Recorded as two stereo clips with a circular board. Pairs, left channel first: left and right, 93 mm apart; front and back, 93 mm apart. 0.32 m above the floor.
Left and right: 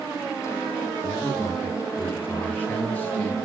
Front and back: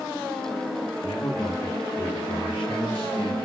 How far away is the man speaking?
About 8 m.